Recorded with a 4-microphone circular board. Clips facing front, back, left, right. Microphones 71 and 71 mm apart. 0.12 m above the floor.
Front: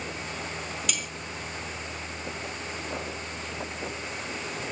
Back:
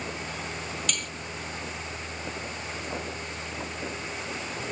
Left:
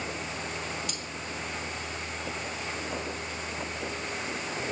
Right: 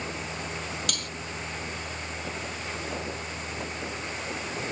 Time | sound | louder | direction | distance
0.9 | cutlery clinking | even, right 3 dB | 85° right | ?